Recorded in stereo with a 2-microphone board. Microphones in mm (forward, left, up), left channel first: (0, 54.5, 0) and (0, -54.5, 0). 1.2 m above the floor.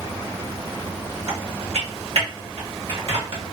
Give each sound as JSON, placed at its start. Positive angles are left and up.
{"t": 1.3, "sound": "typing on a keyboard", "side_deg": -65, "distance_m": 1.3}